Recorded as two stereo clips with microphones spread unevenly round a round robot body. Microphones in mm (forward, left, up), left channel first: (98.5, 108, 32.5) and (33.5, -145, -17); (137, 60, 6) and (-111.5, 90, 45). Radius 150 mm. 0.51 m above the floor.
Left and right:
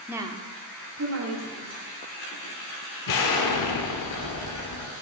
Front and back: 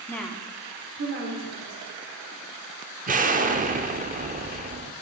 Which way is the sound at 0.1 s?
50° right.